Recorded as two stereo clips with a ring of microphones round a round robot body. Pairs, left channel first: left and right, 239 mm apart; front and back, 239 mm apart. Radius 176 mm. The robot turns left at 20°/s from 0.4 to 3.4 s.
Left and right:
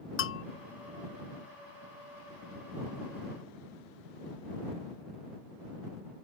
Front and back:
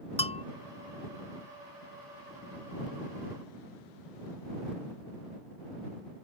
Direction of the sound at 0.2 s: 65° left.